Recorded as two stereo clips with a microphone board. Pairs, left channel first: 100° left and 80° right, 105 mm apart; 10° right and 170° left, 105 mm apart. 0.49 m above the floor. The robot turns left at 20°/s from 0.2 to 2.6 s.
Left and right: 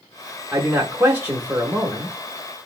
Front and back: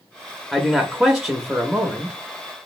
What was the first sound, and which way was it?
A man speaking, 95° right.